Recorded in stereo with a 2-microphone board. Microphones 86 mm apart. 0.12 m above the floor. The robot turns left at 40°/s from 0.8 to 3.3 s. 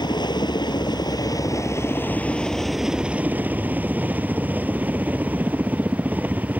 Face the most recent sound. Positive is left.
turn(degrees=-25)